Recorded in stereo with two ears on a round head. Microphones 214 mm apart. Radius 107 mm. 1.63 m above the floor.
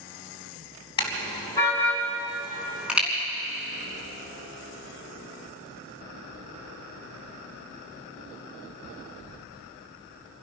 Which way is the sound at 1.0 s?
20° left (ahead or behind).